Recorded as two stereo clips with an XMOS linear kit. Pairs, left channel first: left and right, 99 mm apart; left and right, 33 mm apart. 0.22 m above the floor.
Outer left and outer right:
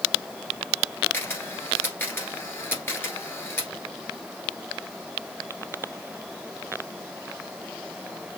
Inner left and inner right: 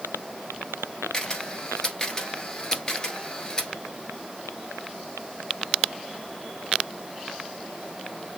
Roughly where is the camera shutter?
Left.